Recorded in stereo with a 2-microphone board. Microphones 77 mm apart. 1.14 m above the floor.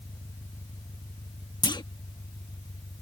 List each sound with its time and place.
0.0 s an engine running: 60° left (ahead or behind)
1.6 s a clunk: 75° left (ahead or behind)